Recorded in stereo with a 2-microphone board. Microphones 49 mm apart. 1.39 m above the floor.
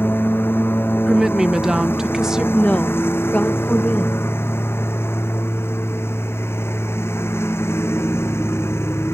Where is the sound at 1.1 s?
15° right (ahead or behind).